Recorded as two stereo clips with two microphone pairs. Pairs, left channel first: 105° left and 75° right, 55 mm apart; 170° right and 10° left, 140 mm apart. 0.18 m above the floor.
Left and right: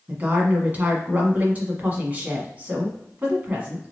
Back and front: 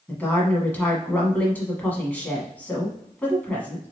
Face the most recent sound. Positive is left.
turn(degrees=-100)